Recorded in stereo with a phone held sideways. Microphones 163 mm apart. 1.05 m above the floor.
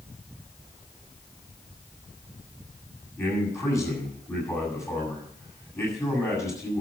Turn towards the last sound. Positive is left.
turn(degrees=15)  # may be behind; listen again after turning